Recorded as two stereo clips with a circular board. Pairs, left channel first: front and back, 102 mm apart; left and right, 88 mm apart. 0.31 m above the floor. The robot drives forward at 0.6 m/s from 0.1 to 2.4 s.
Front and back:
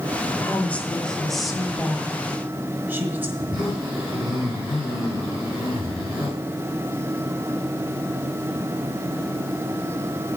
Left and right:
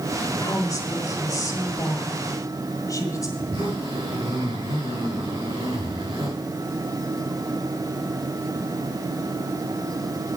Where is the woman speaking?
60° left, 1.7 m; by 3.3 s 120° left, 1.7 m.